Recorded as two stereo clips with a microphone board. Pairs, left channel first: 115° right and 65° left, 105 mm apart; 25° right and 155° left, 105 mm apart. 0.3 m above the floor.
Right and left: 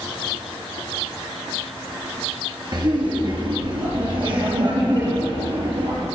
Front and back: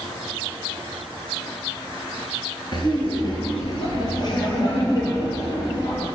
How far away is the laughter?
About 4.5 m.